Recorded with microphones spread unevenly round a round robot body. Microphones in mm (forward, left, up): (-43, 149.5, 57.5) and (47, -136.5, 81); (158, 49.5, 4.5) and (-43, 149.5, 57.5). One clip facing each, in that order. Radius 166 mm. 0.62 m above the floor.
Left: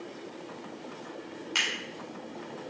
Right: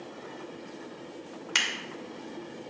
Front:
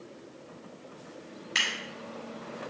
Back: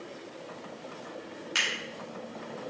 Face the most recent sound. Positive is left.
turn(degrees=-130)